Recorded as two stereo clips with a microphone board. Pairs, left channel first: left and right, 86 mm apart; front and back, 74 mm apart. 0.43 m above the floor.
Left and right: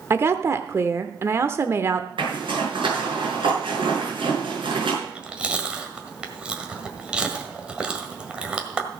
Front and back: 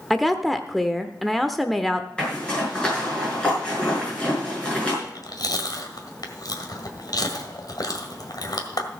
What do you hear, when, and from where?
0.1 s a woman speaking: 90° right, 0.9 m
2.2 s a zipper: 75° right, 5.5 m
5.0 s chewing: 10° right, 1.7 m